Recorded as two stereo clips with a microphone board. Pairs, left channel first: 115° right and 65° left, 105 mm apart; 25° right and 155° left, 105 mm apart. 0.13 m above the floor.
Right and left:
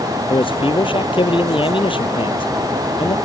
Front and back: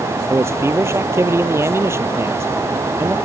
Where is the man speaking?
140° right.